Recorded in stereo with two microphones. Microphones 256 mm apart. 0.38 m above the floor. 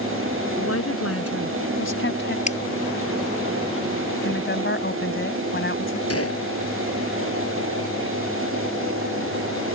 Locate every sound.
0.6 s a woman speaking: 70° left (ahead or behind); by 2.4 s 45° left (ahead or behind)
2.5 s scissors: 30° left (ahead or behind)
4.2 s a woman speaking: 50° left (ahead or behind)
6.1 s a gunshot: 65° left (ahead or behind)